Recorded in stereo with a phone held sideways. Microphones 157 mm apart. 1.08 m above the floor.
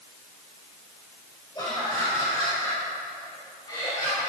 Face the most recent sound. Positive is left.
turn(degrees=30)  # may be behind; listen again after turning